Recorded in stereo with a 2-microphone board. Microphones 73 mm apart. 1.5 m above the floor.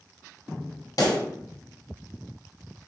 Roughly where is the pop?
Left.